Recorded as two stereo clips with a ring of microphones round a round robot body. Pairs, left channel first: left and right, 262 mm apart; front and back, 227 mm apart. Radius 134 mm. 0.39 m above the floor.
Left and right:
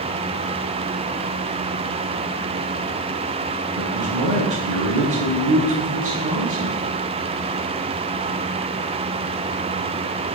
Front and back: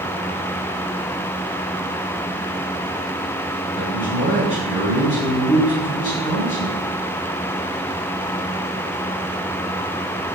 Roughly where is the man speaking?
Ahead right.